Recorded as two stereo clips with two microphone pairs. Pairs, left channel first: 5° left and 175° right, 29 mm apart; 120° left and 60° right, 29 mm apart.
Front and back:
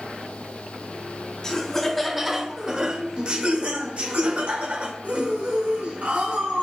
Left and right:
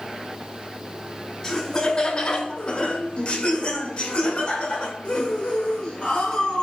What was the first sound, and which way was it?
Laughter, 65° left.